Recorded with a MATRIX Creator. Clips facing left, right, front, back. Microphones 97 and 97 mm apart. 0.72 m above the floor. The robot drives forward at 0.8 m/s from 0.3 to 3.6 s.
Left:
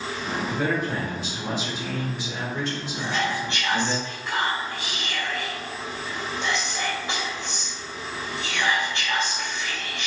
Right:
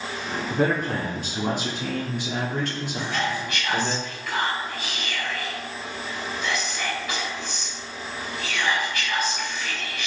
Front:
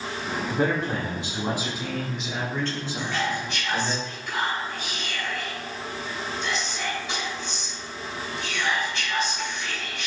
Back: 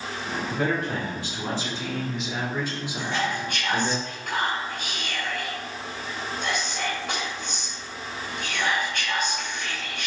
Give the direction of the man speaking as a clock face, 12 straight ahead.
2 o'clock.